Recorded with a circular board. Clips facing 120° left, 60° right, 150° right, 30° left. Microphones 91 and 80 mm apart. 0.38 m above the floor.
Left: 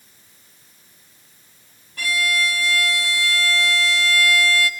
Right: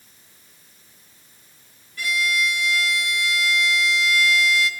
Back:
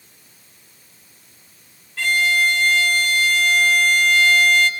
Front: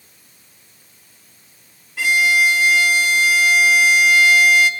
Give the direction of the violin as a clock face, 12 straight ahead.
8 o'clock.